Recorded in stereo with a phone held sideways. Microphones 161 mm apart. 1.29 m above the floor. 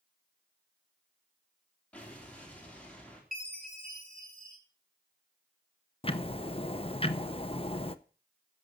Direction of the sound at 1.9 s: 10° left (ahead or behind).